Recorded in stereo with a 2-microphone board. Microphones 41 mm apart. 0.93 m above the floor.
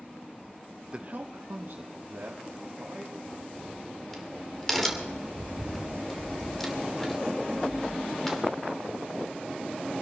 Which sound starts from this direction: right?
A man speaking, at 0.9 s.